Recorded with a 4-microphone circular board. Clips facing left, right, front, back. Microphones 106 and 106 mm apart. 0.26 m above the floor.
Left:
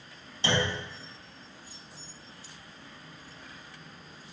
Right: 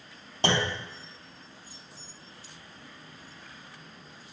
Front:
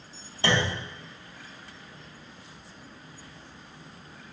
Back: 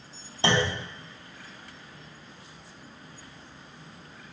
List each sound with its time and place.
0.4 s a clunk: 115° right, 0.5 m